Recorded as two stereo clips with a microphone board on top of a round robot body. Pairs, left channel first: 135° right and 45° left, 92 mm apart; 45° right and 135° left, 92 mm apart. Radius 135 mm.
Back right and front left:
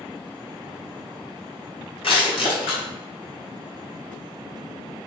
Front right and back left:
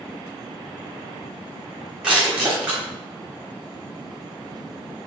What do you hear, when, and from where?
2.0 s crushing: 145° right, 4 m